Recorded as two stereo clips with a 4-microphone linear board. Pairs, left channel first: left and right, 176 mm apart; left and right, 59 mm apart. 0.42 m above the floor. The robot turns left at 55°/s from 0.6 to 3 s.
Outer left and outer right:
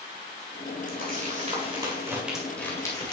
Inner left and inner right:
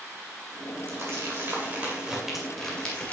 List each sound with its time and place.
0.9 s crumpling: 50° right (ahead or behind), 2 m; by 3.1 s 25° left (ahead or behind), 2 m